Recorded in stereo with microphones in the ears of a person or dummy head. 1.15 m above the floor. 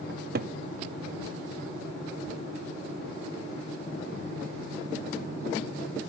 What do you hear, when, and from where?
0.1 s a cupboard door: 50° right (ahead or behind), 0.6 m